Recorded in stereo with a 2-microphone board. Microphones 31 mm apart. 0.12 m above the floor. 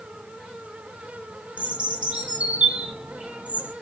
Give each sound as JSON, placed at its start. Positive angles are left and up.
{"t": 1.6, "sound": "a bird", "side_deg": -40, "distance_m": 3.5}